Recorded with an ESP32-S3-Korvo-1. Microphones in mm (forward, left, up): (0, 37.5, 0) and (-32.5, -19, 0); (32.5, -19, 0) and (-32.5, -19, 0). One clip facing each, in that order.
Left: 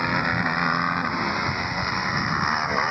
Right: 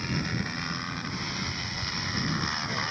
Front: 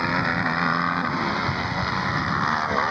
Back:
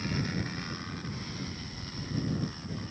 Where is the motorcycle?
25° left; by 2.9 s 5° left.